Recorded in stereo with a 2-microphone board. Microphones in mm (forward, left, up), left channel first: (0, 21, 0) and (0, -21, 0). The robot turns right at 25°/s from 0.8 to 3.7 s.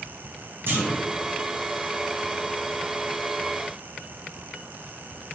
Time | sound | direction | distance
0.7 | a clunk | 65° right (ahead or behind) | 1.0 m